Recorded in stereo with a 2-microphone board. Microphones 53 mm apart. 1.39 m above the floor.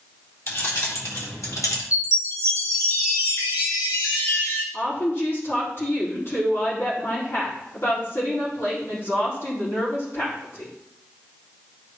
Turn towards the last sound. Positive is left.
turn(degrees=55)  # may be behind; listen again after turning